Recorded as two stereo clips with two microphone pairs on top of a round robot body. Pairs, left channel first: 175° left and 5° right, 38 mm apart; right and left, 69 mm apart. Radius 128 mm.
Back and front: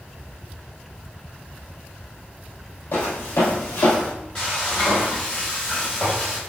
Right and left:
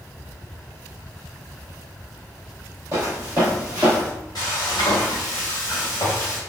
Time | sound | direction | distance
2.9 | footsteps | 145° left | 1.8 m
4.3 | frying | 95° right | 0.7 m